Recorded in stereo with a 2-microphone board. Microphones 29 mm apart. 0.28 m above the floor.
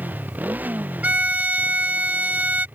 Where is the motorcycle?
85° right.